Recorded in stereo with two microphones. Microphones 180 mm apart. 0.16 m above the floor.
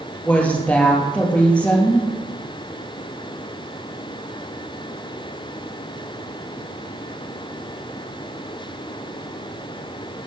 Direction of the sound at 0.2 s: 5° left (ahead or behind).